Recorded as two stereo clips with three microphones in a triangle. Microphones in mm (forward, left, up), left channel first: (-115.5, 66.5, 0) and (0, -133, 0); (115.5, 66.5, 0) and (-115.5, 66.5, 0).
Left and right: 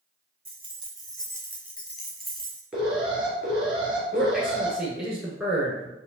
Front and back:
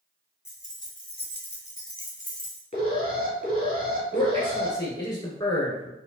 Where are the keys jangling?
60° right, 1.1 m; by 2.6 s 35° left, 1.5 m.